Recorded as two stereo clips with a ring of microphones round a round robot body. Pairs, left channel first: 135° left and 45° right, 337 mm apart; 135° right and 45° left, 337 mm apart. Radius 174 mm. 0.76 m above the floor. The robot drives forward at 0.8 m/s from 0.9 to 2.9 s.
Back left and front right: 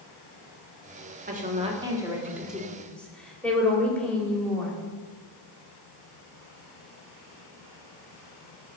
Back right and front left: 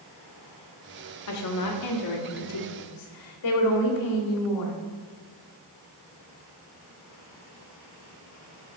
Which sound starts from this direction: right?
A woman speaking, at 1.3 s.